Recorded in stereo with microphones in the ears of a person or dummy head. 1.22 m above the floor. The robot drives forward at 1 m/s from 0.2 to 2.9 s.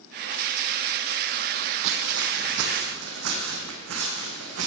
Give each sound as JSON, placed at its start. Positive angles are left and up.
{"t": 1.8, "sound": "footsteps", "side_deg": -60, "distance_m": 2.5}